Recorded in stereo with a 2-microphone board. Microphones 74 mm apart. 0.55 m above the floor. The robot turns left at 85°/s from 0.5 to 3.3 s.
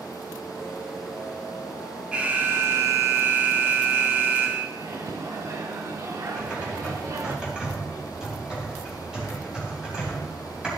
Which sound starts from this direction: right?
A microwave, at 4.8 s.